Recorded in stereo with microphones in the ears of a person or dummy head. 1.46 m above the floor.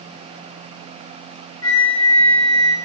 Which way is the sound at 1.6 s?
30° left (ahead or behind).